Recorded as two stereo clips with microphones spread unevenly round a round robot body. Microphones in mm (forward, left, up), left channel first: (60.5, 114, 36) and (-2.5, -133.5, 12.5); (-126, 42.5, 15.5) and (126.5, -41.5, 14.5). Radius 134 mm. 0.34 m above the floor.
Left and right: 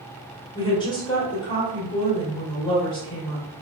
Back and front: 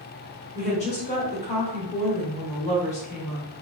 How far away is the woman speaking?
About 1.2 m.